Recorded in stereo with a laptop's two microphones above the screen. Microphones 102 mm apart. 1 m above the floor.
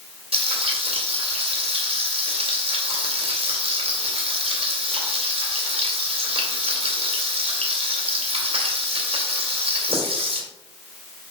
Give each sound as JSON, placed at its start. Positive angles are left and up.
{"t": 0.3, "sound": "frying", "side_deg": -75, "distance_m": 2.5}